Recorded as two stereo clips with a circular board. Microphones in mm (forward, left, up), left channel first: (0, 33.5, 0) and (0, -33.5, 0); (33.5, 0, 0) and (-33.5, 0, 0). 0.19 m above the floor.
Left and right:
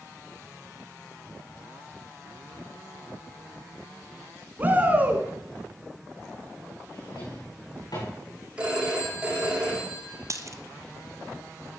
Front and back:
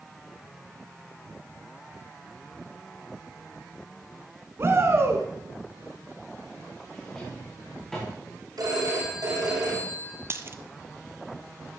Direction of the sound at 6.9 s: 85° left.